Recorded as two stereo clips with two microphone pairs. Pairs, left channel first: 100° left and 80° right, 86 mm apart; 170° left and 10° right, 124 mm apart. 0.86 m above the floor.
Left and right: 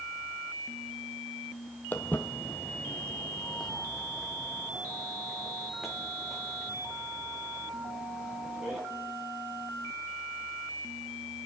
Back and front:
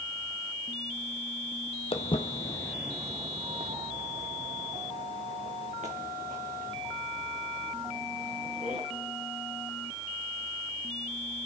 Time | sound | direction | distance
1.9 | footsteps | 160° left | 1.3 m